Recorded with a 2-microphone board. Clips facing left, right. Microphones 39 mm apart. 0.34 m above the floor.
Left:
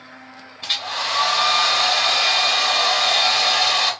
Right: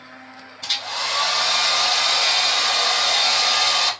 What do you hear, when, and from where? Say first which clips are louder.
0.6 s a hair dryer: left 1 dB; 20° left (ahead or behind), 1.2 m